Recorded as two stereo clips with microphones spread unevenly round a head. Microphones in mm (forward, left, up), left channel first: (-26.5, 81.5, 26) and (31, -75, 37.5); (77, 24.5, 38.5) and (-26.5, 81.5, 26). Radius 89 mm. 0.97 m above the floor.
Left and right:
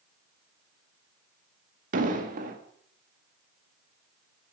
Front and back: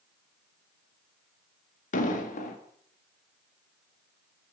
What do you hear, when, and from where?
1.9 s an explosion: 30° right, 1.9 m